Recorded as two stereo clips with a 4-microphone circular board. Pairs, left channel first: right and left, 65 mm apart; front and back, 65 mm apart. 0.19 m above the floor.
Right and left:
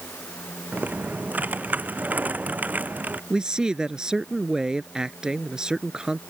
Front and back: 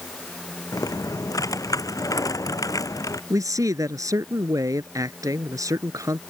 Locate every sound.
0.7 s typing on a keyboard: 25° left
3.3 s a man speaking: 170° left